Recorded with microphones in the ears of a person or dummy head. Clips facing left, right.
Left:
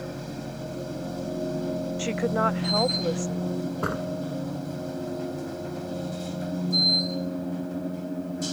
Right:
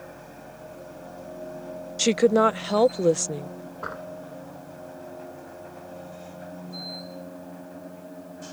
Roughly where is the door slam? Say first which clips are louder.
Left 7 dB; left.